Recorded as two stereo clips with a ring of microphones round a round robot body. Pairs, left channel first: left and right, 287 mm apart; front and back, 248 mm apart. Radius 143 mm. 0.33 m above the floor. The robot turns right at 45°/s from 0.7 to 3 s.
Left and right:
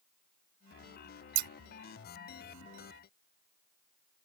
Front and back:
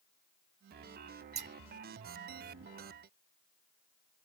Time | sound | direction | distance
1.4 | scissors | 110° right | ?